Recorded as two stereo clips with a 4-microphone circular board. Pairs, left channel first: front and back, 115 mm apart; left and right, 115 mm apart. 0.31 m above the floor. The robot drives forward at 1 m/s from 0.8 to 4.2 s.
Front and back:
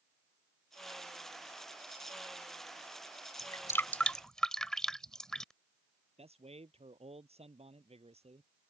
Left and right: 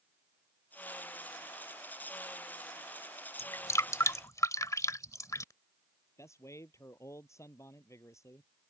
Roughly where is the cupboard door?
I don't hear a cupboard door.